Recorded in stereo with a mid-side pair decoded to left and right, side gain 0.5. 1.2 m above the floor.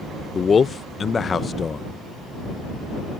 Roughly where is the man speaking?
Ahead left.